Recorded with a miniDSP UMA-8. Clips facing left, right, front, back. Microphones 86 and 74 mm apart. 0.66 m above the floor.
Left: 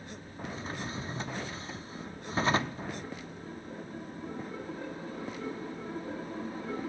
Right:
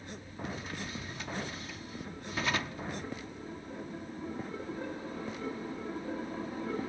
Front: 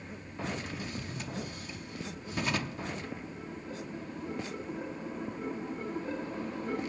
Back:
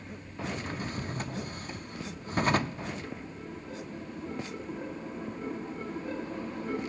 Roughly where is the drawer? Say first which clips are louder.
Left 5 dB, back 5 dB; behind left.